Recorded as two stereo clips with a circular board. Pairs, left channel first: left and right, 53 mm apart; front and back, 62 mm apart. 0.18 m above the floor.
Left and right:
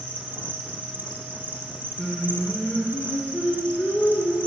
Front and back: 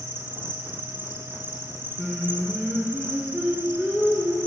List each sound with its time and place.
0.0 s an insect: 135° right, 1.2 m
2.0 s singing: 110° left, 2 m